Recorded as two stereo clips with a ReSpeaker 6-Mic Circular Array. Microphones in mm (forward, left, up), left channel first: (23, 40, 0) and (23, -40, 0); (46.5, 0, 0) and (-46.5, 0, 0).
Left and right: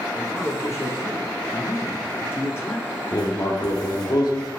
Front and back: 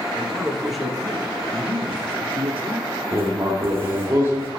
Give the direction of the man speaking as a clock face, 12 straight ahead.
9 o'clock.